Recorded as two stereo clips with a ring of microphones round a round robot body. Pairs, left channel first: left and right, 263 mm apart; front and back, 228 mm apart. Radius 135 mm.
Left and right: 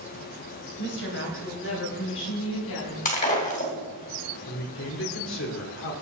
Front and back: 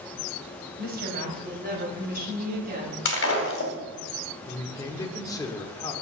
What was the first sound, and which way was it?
A woman speaking, 135° left.